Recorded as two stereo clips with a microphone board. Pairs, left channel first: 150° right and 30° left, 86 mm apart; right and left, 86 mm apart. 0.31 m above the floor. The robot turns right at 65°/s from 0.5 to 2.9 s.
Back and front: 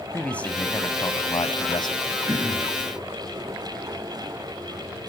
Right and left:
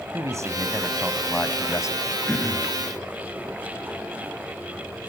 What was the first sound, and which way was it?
A man speaking, 135° left.